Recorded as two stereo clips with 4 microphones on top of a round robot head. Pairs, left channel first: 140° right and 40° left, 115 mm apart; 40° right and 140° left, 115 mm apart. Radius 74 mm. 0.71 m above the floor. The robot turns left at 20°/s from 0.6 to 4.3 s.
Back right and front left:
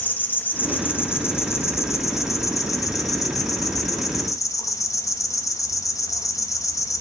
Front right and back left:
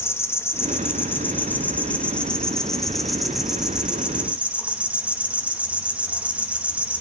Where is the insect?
80° right, 1.5 m; by 7.0 s 155° right, 1.5 m.